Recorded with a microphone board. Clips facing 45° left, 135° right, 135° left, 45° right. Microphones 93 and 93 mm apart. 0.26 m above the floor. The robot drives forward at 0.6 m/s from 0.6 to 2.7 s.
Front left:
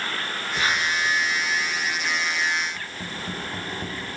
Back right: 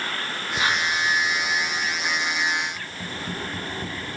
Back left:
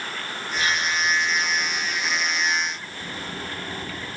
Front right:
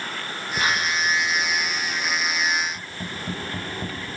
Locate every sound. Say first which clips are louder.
0.6 s whispering: back right 1 dB, front right 1 dB; 65° right, 3 m; by 1.1 s 70° right, 3 m
2.8 s tapping: even, front right 1 dB; 70° right, 9.5 m